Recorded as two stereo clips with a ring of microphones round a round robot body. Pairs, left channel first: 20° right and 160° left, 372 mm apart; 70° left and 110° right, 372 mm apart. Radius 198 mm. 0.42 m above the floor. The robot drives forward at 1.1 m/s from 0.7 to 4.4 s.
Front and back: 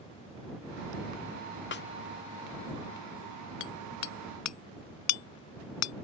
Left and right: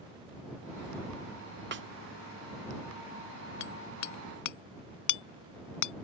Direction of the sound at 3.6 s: 20° left.